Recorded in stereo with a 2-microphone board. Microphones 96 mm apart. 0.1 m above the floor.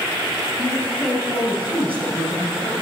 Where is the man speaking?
15° left (ahead or behind), 1.9 m.